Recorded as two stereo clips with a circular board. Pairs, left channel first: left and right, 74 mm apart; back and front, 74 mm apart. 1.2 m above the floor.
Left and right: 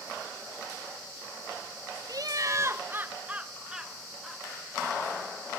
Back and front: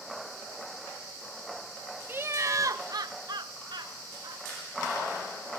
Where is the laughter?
60° right, 0.8 m; by 4.4 s straight ahead, 1.5 m.